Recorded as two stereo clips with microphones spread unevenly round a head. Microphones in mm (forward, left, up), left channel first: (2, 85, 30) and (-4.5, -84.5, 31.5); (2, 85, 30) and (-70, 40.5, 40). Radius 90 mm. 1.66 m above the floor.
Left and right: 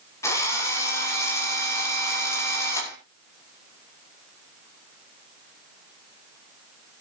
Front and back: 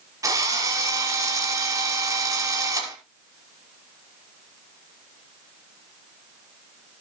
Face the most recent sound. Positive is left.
turn(degrees=165)